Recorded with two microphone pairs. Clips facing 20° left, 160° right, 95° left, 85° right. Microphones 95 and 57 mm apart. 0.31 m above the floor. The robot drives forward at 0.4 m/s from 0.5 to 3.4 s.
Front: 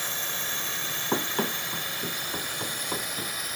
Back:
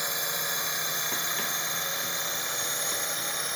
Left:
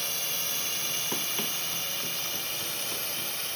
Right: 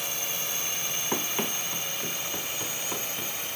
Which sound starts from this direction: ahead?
Running footsteps, at 1.1 s.